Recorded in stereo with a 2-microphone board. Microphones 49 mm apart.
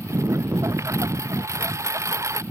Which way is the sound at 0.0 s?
80° right.